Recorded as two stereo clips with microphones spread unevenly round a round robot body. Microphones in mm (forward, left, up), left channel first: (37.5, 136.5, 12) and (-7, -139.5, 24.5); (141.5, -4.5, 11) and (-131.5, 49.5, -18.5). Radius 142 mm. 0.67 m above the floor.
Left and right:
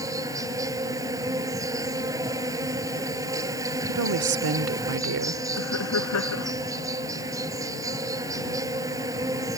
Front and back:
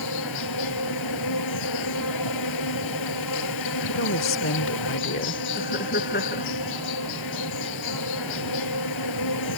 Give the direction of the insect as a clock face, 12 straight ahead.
1 o'clock.